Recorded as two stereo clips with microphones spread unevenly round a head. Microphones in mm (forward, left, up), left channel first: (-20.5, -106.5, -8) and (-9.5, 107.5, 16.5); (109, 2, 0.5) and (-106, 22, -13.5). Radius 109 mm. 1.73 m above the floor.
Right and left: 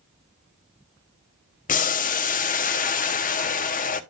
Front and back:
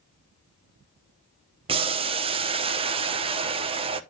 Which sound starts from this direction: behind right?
Boiling, at 1.7 s.